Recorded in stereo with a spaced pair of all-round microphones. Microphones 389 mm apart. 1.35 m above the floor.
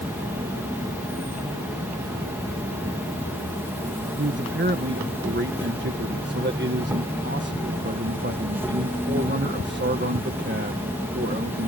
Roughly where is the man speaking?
Right.